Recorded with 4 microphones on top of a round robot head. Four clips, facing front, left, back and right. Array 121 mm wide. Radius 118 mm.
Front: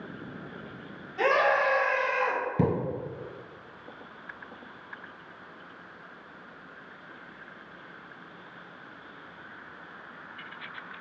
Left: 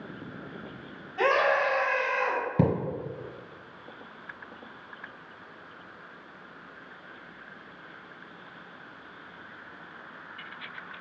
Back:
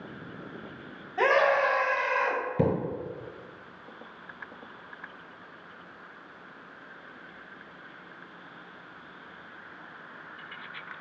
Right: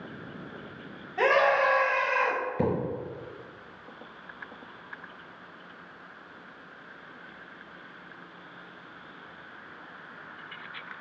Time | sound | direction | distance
1.2 | a scream | 140° right | 1.3 m
2.6 | a thud | 85° left | 0.9 m